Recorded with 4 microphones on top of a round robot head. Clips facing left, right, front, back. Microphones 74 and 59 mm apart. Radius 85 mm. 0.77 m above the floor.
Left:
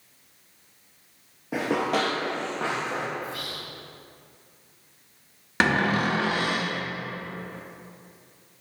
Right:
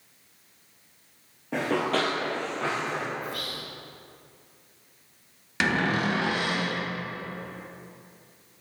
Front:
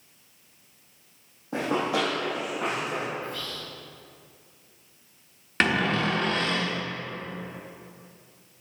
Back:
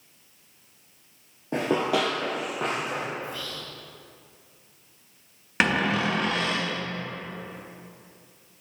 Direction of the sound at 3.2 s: 110° right.